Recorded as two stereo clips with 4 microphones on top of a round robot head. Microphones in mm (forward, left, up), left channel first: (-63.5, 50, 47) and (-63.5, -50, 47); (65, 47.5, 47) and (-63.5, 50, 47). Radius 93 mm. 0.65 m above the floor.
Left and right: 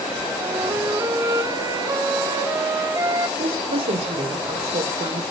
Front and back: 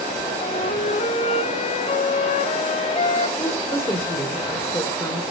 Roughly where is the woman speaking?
Right.